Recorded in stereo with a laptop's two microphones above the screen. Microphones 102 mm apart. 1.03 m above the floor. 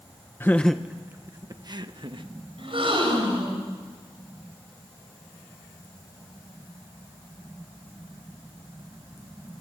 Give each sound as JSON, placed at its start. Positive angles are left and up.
{"t": 0.4, "sound": "laughter", "side_deg": 25, "distance_m": 0.6}
{"t": 2.6, "sound": "a gasp", "side_deg": -60, "distance_m": 5.5}